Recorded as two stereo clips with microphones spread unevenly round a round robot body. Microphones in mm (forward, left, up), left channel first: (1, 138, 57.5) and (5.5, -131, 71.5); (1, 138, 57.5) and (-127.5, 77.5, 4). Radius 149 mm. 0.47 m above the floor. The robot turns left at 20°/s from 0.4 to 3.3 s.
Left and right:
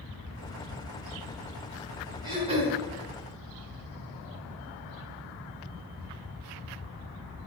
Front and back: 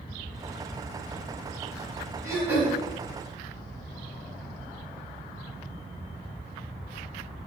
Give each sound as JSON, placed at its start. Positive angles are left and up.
{"t": 2.2, "sound": "throat clearing", "azimuth_deg": -15, "distance_m": 4.0}